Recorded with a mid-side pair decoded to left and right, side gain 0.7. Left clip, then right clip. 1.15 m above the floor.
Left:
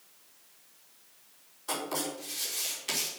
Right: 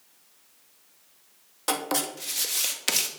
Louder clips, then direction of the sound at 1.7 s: Right 6 dB; 70° right.